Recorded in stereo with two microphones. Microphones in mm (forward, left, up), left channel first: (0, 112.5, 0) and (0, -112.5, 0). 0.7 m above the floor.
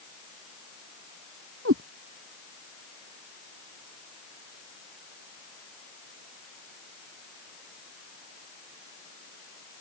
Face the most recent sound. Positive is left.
turn(degrees=-85)